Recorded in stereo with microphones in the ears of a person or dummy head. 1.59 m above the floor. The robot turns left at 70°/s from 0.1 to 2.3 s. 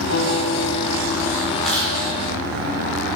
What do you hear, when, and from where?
0.1 s a guitar: 115° left, 2 m; by 1.6 s 10° left, 2 m
1.6 s chewing: 5° right (ahead or behind), 5 m; by 1.9 s 15° left (ahead or behind), 5 m